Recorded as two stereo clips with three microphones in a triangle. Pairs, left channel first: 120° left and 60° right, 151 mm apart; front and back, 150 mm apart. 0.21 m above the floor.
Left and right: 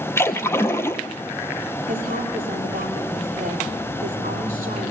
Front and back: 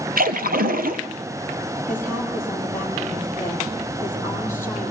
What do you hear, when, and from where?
0.2 s a splash: 165° right, 1.4 m
1.9 s a woman speaking: 75° right, 6.5 m